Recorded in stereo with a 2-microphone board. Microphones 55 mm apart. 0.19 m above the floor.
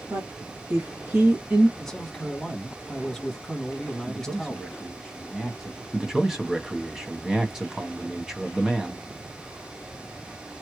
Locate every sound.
0.1 s a woman speaking: 50° right (ahead or behind), 1.6 m; by 1.7 s 20° right (ahead or behind), 1.1 m
1.8 s a man speaking: 10° left (ahead or behind), 1.3 m
4.1 s a man speaking: centre (ahead or behind), 1.1 m
5.9 s a man speaking: 10° right (ahead or behind), 1.0 m